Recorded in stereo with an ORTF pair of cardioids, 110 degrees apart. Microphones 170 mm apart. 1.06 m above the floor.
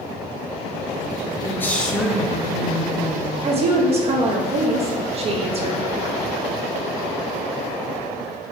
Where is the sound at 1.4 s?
15° left, 1.0 m; by 3.8 s 30° right, 1.7 m.